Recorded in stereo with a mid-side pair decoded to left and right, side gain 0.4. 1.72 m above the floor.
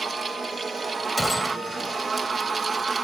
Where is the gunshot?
10° left.